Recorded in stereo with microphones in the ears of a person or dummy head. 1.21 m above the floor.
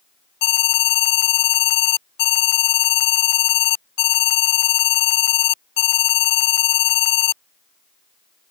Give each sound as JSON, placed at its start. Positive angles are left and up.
{"t": 0.4, "sound": "an alarm", "side_deg": 55}